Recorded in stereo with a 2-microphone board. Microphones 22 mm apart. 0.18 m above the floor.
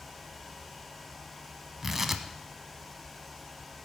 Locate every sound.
1.8 s tearing paper: 20° right (ahead or behind), 0.9 m